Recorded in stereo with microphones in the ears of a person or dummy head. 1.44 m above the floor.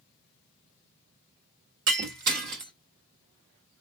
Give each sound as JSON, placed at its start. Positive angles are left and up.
{"t": 1.9, "sound": "breaking glass", "side_deg": -55, "distance_m": 1.1}